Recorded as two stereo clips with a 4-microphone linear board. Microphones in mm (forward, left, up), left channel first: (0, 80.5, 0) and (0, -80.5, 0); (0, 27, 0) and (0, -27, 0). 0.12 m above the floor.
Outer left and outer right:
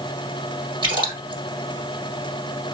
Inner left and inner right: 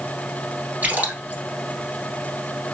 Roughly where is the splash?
Right.